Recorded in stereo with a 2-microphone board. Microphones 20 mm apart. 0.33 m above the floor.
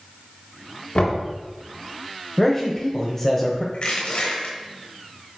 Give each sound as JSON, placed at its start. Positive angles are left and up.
{"t": 0.9, "sound": "knocking", "side_deg": 70, "distance_m": 3.0}
{"t": 2.4, "sound": "a man speaking", "side_deg": 20, "distance_m": 1.2}
{"t": 3.7, "sound": "crushing", "side_deg": 60, "distance_m": 3.0}